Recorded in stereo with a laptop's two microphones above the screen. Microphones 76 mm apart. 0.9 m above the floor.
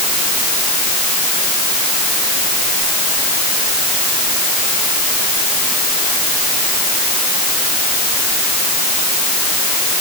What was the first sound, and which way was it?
Only background noise.